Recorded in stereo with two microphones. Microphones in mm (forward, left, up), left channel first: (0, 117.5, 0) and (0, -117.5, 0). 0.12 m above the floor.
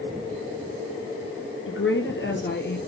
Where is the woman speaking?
55° left (ahead or behind), 2.5 m; by 2.8 s 45° left (ahead or behind), 2.5 m.